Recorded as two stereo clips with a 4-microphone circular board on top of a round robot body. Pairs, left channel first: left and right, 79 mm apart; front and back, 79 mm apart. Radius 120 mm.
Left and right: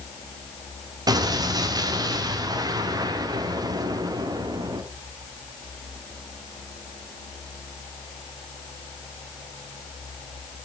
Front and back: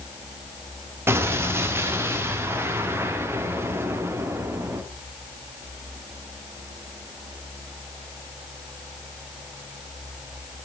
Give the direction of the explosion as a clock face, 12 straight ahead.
4 o'clock.